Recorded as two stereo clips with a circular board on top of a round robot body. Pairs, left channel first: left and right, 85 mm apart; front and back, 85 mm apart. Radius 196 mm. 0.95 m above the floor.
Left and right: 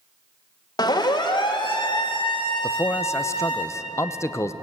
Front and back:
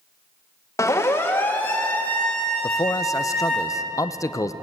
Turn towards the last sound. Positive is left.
turn(degrees=40)